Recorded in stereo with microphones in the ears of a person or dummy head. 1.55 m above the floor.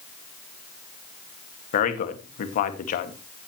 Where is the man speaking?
45° left (ahead or behind), 2 m.